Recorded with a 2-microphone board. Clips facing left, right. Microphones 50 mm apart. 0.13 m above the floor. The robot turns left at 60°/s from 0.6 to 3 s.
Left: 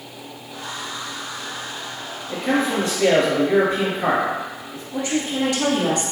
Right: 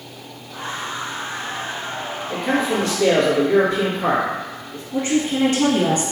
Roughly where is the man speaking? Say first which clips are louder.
Even; behind.